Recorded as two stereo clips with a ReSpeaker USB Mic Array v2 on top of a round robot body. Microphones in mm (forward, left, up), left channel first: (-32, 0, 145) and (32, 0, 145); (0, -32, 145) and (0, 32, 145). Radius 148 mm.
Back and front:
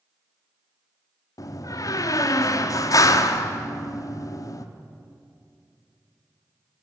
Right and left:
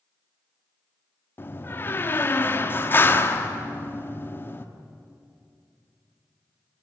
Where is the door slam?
145° right, 1.4 m.